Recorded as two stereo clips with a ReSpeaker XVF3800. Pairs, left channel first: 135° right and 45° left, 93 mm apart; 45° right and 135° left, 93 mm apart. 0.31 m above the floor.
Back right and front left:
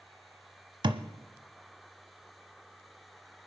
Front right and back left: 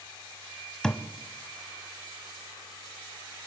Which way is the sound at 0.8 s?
35° left.